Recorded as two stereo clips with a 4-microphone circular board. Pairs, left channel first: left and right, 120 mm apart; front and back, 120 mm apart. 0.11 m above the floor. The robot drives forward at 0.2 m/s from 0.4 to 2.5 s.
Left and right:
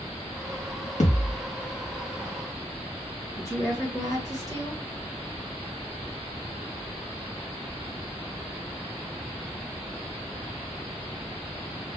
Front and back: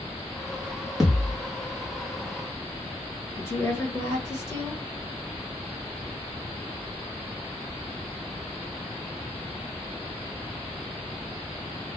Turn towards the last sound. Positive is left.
turn(degrees=50)